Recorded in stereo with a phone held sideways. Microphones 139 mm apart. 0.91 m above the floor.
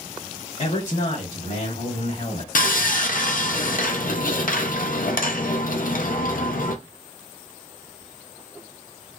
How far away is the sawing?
About 0.5 m.